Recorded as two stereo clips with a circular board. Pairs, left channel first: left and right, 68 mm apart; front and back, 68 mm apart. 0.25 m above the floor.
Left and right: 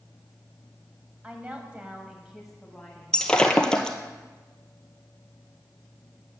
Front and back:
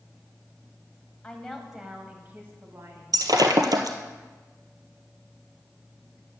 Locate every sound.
1.2 s a woman speaking: 55° right, 1.5 m; by 3.2 s 175° left, 2 m
3.1 s breaking glass: 170° left, 1.1 m